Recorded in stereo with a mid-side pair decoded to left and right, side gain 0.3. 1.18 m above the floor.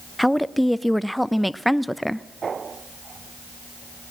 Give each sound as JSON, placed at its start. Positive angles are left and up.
{"t": 0.2, "sound": "a woman speaking", "azimuth_deg": 5, "distance_m": 0.5}